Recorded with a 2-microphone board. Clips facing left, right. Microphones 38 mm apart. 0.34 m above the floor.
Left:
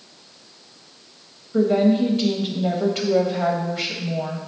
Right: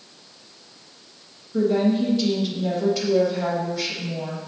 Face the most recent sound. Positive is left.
turn(degrees=40)  # may be behind; listen again after turning